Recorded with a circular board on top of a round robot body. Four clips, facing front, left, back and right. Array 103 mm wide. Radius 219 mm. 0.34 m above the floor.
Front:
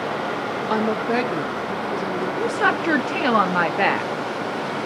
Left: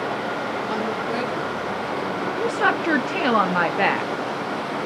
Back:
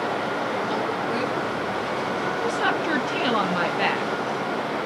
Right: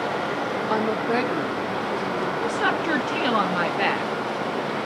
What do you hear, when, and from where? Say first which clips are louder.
0.7 s a woman speaking: right 5 dB, front 4 dB; 30° right, 1.0 m; by 2.3 s 35° right, 1.6 m
2.4 s a woman speaking: left 5 dB, front 4 dB; 40° left, 0.9 m